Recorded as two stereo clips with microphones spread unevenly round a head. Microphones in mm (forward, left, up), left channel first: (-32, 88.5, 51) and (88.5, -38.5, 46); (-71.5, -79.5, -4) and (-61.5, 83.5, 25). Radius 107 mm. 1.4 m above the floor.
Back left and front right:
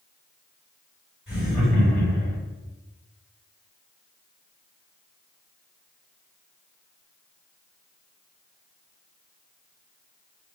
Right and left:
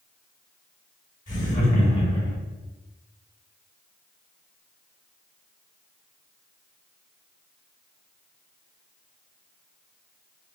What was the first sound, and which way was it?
Laughter, 130° right.